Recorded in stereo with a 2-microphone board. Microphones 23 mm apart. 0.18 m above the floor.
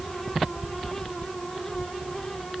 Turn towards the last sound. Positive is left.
No sound to turn to.